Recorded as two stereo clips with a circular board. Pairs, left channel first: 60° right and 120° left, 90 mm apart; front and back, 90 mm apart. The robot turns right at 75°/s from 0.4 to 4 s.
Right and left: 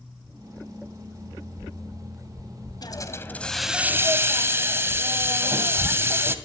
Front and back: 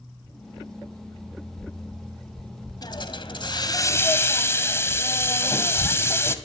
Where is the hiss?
30° right, 1.9 m; by 6.3 s 60° left, 1.9 m.